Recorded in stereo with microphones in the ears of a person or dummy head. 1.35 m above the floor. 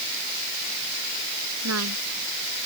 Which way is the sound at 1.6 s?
90° right.